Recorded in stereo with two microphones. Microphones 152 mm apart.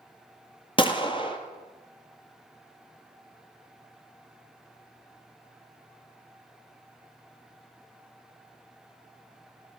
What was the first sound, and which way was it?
A gunshot, 35° left (ahead or behind).